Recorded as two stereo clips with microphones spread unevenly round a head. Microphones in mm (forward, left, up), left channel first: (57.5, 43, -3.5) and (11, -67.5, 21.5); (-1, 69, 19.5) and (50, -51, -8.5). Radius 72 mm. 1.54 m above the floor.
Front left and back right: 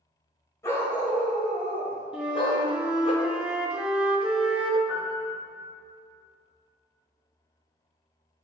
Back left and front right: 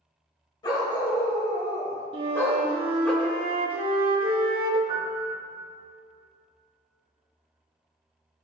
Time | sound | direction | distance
0.6 | a dog barking | 145° left | 1.8 m
2.1 | a flute | 75° right | 0.9 m
4.9 | a piano | 125° right | 1.3 m